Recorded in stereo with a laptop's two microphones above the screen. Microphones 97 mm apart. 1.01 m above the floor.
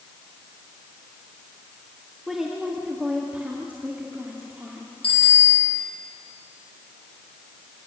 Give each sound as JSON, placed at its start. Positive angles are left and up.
{"t": 2.3, "sound": "a woman speaking", "side_deg": -5, "distance_m": 1.9}
{"t": 5.0, "sound": "a bicycle bell", "side_deg": 75, "distance_m": 6.0}